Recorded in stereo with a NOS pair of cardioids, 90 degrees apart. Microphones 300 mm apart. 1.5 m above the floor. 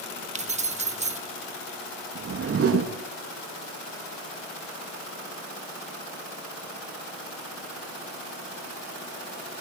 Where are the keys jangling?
25° right, 1.3 m.